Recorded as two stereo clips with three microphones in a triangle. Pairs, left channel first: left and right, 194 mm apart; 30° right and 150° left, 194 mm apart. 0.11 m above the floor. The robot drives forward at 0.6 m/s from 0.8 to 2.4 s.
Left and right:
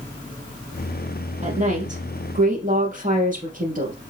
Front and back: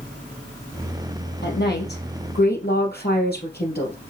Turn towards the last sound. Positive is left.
turn(degrees=-50)